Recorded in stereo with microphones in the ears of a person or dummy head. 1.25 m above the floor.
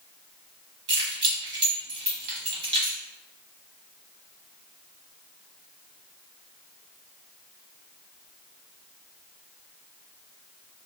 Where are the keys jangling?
25° right (ahead or behind), 1.4 m.